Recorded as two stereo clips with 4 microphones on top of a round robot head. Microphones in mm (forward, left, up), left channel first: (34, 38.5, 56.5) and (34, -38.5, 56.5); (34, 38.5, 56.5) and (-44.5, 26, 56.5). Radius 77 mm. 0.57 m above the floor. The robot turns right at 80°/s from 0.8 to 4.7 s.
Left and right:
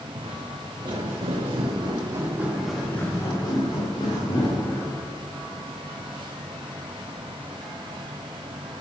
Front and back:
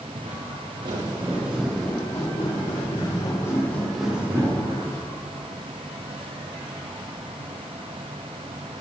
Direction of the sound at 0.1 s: 130° right.